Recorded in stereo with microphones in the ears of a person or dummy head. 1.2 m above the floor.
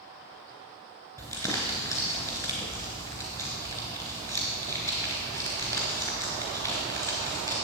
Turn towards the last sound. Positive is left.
turn(degrees=15)  # may be behind; listen again after turning